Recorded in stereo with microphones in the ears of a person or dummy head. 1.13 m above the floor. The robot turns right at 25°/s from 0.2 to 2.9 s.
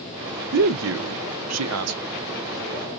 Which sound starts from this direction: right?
A man speaking, at 0.5 s.